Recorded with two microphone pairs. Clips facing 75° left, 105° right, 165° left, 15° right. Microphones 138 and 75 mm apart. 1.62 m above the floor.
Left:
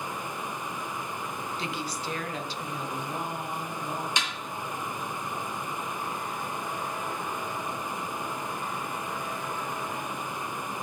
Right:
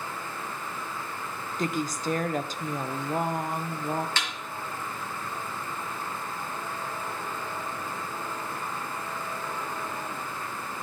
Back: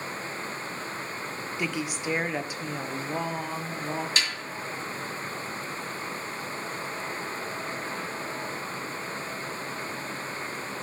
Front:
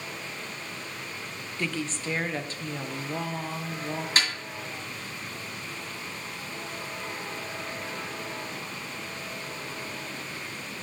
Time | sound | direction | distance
1.6 | a woman speaking | 125° right | 0.6 m
4.2 | a snare drum | 5° left | 2 m